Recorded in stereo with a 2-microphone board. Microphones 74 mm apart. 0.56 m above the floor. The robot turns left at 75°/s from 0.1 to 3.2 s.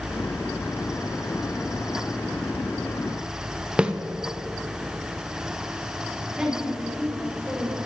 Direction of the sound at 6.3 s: 10° right (ahead or behind).